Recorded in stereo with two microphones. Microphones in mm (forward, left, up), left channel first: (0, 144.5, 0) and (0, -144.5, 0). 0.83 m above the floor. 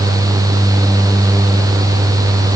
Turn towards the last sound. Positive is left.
No sound to turn to.